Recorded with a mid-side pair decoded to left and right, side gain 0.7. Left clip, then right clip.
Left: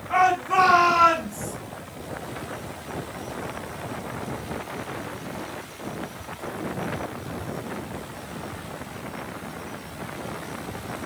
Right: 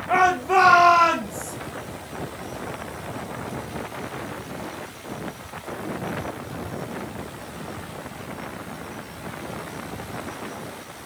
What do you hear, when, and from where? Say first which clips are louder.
0.1 s a shout: right 2 dB; 55° right, 2 m; by 1.5 s 45° right, 3 m